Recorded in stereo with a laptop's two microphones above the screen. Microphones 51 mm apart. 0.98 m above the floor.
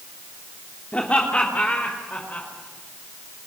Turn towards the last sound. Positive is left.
turn(degrees=30)  # may be behind; listen again after turning